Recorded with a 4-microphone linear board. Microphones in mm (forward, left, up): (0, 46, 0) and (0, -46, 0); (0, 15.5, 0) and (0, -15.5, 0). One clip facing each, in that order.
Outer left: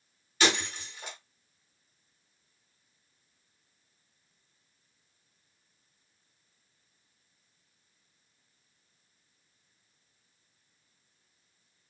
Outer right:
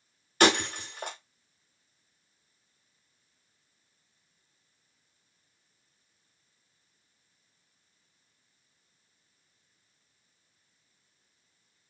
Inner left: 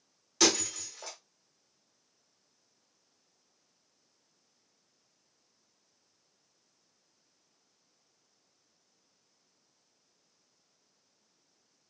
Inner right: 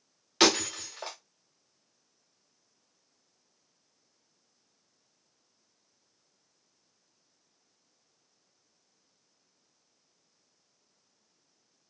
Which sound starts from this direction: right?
Breaking glass, at 0.4 s.